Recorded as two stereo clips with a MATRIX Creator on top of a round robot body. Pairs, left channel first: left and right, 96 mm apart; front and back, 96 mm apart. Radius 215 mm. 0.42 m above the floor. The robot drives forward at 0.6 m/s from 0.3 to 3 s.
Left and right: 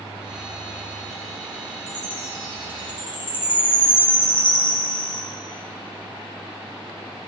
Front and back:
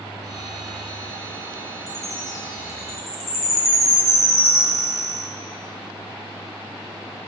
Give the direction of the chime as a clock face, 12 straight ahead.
10 o'clock.